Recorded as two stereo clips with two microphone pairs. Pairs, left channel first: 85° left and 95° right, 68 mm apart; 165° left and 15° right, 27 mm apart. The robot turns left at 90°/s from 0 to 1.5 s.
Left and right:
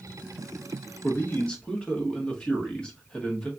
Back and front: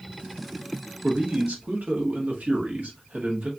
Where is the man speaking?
55° left, 1.6 m; by 3.5 s 15° left, 1.6 m.